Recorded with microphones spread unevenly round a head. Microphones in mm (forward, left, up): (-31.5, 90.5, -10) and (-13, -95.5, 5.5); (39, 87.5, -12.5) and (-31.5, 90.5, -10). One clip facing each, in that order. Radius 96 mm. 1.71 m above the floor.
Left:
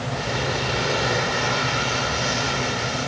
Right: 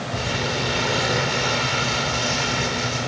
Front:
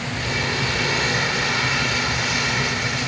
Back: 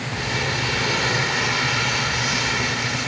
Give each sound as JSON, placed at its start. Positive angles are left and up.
{"t": 0.1, "sound": "crumpling", "azimuth_deg": -130, "distance_m": 9.5}